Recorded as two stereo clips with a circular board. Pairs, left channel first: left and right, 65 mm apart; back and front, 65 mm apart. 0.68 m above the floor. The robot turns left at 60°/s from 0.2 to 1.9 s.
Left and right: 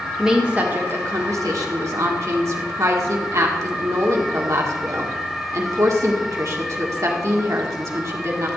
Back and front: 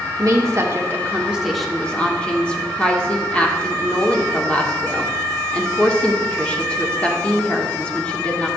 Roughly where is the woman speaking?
Ahead.